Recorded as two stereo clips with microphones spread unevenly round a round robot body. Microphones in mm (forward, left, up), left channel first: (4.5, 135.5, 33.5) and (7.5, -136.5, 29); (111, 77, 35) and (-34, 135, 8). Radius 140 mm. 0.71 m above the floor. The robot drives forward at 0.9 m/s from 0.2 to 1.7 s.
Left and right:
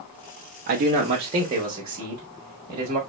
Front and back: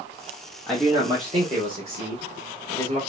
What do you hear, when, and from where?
0.7 s a man speaking: 110° right, 0.8 m; by 3.0 s 160° right, 1.3 m